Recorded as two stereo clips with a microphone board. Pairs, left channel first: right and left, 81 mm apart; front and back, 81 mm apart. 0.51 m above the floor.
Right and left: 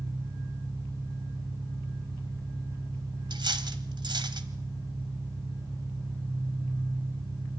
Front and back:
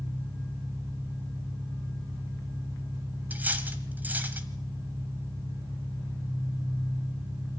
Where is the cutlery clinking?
110° left, 1.8 m.